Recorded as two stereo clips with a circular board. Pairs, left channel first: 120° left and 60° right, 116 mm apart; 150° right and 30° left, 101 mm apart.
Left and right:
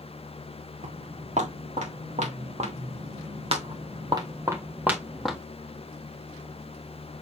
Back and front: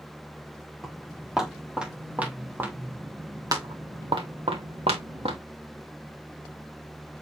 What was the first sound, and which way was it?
Footsteps, 60° right.